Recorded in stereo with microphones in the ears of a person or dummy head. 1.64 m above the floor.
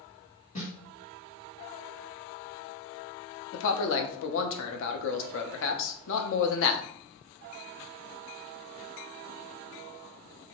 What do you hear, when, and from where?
0.6 s a snare drum: 45° left (ahead or behind), 1.3 m
3.5 s a man speaking: 65° left (ahead or behind), 0.6 m